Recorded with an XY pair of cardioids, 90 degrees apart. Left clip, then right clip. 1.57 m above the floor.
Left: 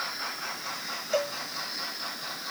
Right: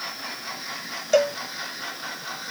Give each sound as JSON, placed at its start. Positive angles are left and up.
{"t": 1.1, "sound": "a cowbell", "azimuth_deg": -70}